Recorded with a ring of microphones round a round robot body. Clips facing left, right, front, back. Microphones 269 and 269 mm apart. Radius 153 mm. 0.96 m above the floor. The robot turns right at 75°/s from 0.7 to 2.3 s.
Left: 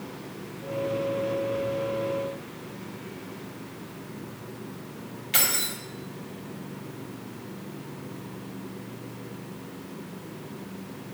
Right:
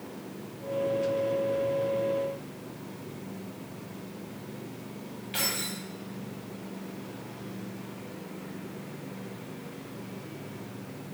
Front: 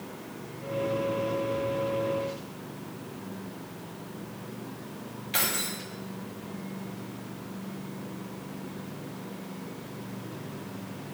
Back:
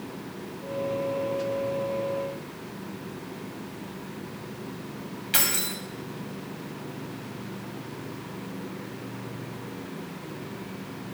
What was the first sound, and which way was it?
Keys jangling, 130° left.